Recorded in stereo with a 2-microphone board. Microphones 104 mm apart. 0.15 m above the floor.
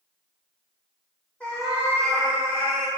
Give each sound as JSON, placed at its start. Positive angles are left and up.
{"t": 1.4, "sound": "a cat meowing", "side_deg": 10, "distance_m": 0.9}